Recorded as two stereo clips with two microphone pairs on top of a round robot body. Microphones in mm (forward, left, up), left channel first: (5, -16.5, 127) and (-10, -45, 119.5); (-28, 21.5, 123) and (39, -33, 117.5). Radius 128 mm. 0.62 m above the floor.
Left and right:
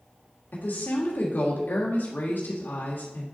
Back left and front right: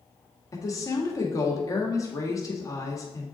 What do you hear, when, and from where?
0.5 s a woman speaking: 90° left, 1.4 m